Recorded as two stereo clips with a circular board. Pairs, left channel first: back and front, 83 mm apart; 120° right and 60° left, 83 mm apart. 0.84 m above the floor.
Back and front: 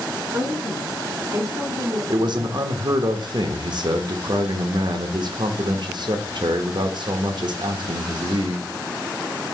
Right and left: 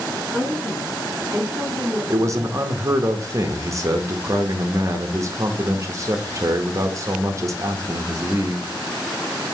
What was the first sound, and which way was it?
A woman speaking, straight ahead.